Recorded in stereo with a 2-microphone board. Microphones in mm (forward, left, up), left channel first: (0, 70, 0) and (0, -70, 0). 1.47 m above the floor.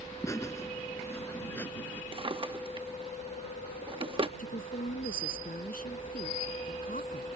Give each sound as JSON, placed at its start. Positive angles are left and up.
{"t": 0.2, "sound": "laughter", "side_deg": 20}
{"t": 2.1, "sound": "a drawer", "side_deg": -40}
{"t": 4.4, "sound": "a woman speaking", "side_deg": 75}